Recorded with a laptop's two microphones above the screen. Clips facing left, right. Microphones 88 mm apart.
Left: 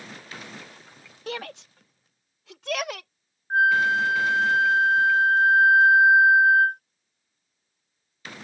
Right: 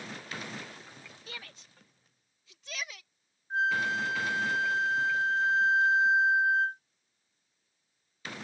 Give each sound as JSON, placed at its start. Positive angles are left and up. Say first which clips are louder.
{"t": 1.3, "sound": "a shout", "louder": "left 17 dB", "side_deg": 70}
{"t": 3.5, "sound": "a flute", "louder": "left 9 dB", "side_deg": 60}